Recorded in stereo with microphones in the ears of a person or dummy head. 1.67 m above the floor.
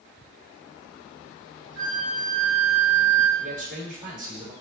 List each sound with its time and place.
1.8 s a flute: 75° right (ahead or behind), 1.1 m
3.4 s a man speaking: 45° right (ahead or behind), 2.5 m